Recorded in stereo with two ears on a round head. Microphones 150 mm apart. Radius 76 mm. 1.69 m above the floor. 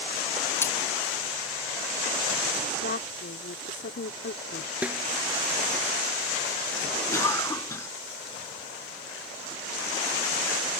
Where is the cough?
15° left (ahead or behind).